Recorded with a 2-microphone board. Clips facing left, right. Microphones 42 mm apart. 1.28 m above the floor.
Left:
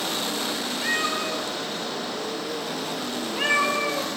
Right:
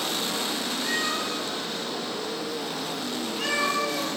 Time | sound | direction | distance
0.8 | a cat meowing | 35° left (ahead or behind) | 3.5 m